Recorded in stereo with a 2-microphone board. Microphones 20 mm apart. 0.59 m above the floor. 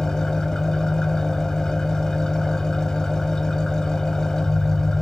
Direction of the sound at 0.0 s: 20° left (ahead or behind).